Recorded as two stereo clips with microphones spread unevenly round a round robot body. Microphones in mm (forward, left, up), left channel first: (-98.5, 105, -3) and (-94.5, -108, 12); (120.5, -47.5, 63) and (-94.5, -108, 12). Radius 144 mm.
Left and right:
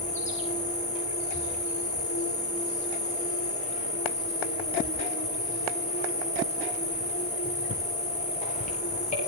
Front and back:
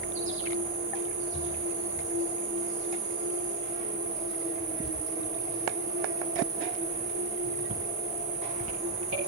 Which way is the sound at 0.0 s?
150° left.